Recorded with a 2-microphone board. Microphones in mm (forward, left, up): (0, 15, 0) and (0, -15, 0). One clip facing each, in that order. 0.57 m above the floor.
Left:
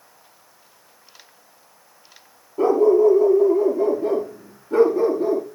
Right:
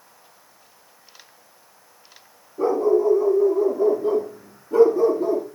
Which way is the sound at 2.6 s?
75° left (ahead or behind).